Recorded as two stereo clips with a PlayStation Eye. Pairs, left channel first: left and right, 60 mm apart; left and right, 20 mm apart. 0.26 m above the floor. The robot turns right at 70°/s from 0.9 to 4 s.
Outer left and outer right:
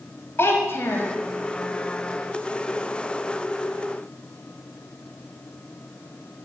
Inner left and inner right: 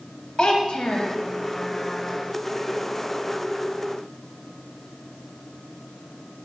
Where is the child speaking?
40° left (ahead or behind), 0.6 m; by 1.1 s 45° left (ahead or behind), 0.6 m.